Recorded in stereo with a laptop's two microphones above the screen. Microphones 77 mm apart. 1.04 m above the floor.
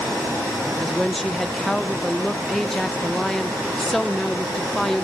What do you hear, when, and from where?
0.8 s a woman speaking: 5° left (ahead or behind), 0.7 m